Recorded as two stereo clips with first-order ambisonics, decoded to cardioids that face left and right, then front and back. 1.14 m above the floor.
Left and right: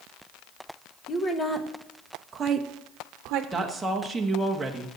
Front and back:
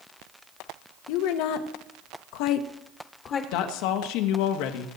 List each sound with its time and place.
1.1 s a woman speaking: 20° left, 1.3 m; by 3.4 s 60° right, 1.1 m
3.5 s a woman speaking: 5° right, 1.2 m